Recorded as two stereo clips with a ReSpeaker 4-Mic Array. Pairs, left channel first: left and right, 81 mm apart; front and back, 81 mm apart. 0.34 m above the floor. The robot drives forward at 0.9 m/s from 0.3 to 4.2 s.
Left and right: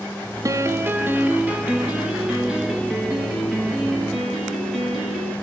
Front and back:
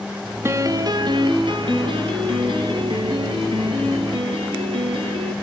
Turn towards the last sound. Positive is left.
turn(degrees=-175)